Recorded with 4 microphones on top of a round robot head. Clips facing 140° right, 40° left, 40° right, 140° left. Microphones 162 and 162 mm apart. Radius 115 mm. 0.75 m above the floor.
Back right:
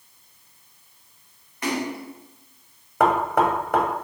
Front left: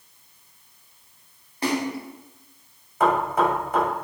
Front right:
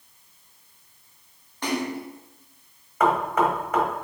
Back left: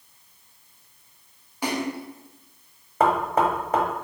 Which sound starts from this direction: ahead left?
A splash, at 1.6 s.